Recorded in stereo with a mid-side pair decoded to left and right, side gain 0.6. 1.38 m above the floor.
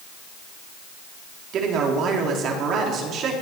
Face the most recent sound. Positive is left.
turn(degrees=-55)